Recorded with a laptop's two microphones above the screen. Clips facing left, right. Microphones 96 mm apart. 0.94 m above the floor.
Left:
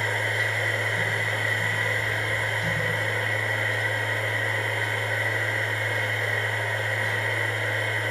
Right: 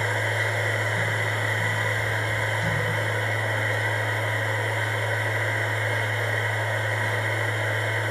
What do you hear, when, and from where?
0.0 s a machine running: 30° right (ahead or behind), 0.7 m